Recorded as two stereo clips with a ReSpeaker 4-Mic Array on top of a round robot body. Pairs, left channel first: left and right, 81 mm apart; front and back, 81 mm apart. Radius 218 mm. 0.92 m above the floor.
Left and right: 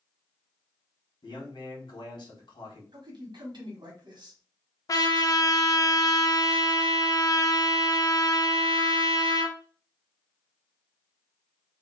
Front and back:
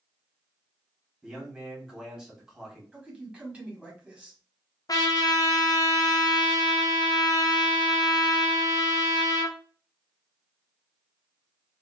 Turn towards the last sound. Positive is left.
turn(degrees=45)